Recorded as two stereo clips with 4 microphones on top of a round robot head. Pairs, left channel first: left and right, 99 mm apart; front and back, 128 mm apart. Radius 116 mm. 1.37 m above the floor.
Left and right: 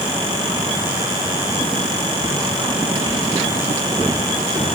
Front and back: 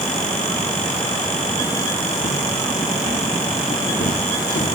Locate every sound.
2.2 s footsteps: 50° right, 4.5 m; by 4.7 s 40° right, 5 m